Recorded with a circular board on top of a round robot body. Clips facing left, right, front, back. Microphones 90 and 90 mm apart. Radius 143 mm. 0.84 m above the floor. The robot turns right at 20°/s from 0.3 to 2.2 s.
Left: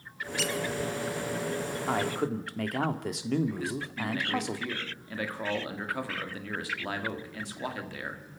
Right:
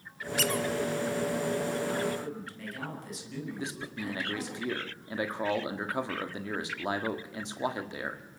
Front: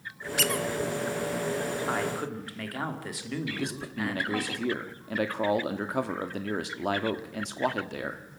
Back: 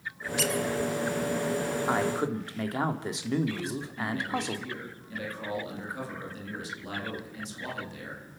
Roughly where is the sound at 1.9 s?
Left.